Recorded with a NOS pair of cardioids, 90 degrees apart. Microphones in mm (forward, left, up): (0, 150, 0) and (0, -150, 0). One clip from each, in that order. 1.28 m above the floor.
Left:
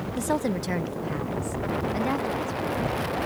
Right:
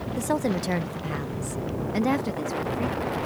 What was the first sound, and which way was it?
A woman speaking, 5° left.